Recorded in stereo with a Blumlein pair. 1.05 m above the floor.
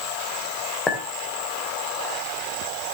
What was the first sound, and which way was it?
A clink, 15° left.